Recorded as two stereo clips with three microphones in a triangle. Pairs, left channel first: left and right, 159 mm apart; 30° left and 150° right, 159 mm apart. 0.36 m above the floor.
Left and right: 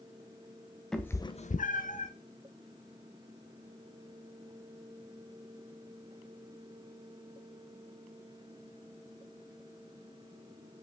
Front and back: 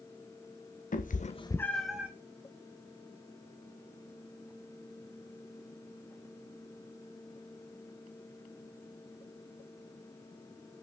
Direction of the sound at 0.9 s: 5° left.